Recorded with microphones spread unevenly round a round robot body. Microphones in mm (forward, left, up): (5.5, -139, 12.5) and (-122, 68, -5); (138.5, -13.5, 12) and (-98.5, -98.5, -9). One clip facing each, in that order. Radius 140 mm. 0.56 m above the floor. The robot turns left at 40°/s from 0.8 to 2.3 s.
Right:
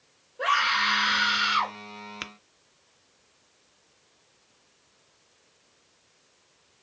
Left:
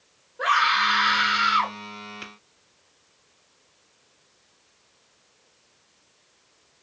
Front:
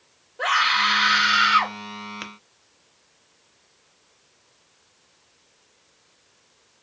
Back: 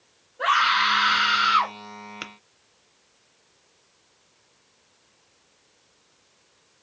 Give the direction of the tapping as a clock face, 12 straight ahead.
3 o'clock.